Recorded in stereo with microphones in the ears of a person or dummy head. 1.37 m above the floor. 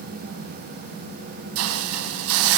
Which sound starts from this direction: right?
A hiss, at 1.6 s.